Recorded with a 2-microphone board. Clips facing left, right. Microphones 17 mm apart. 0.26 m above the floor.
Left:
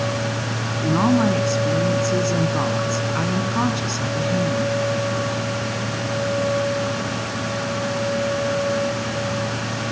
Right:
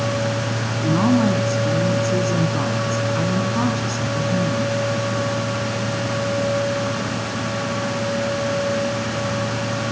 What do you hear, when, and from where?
0.8 s a woman speaking: 20° left (ahead or behind), 2.5 m